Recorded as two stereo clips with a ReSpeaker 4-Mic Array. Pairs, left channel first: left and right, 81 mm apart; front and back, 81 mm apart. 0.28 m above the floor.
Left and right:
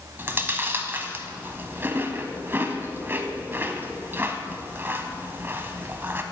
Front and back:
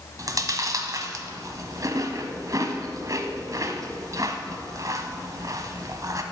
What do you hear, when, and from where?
0.2 s chewing: 145° right, 0.9 m